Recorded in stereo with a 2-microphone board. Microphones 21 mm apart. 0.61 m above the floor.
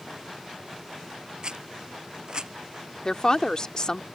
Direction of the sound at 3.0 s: 40° left (ahead or behind).